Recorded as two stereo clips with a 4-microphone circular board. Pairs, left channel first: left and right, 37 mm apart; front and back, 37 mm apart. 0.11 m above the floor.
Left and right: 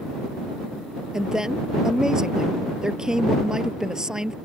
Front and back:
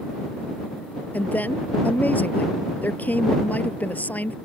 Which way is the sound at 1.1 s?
20° right.